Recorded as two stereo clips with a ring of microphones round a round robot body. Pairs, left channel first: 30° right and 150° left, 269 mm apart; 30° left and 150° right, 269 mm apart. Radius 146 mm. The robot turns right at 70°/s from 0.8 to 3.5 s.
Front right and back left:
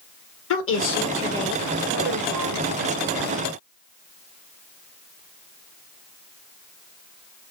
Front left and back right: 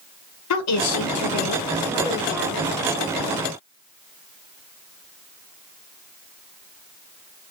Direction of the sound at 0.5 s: 10° left.